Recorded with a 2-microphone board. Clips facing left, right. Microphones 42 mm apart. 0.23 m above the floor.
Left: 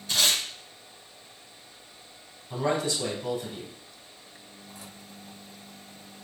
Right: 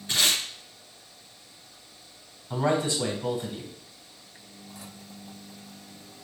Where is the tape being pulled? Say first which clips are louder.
Even; 30° right (ahead or behind), 2.5 m.